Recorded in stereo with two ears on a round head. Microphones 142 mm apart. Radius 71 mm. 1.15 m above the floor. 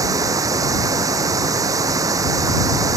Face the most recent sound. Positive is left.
turn(degrees=-20)  # may be behind; listen again after turning